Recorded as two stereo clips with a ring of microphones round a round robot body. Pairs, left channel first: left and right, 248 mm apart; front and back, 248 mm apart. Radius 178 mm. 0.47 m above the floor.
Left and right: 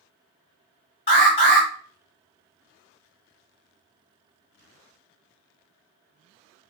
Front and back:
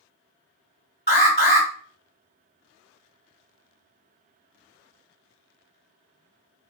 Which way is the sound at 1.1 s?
45° left.